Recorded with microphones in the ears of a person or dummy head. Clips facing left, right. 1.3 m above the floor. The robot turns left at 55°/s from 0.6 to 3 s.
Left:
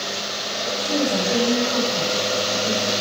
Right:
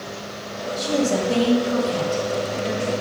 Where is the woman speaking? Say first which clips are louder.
Right 2 dB; 80° right, 2 m; by 2.9 s 160° left, 2 m.